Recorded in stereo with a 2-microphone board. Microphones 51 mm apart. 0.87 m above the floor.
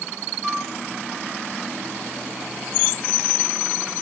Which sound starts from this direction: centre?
A flute, at 0.4 s.